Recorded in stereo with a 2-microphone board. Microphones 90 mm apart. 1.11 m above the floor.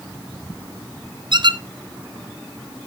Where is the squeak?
55° right (ahead or behind), 0.6 m.